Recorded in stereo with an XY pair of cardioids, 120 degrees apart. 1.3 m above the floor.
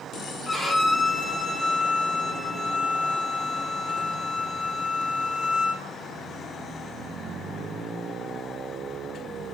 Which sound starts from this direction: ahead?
A violin, at 0.5 s.